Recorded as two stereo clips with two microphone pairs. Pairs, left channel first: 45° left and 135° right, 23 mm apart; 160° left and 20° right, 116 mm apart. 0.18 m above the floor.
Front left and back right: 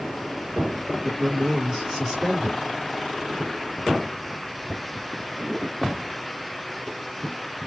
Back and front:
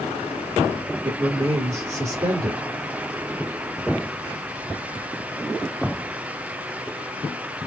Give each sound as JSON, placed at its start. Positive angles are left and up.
{"t": 1.0, "sound": "a man speaking", "azimuth_deg": -60, "distance_m": 2.5}